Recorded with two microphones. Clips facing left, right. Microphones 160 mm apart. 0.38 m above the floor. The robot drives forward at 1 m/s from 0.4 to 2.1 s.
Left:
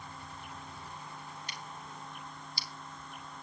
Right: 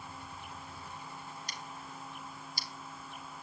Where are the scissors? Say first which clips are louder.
Even; 35° right (ahead or behind), 3.5 m; by 2.7 s 45° right (ahead or behind), 3 m.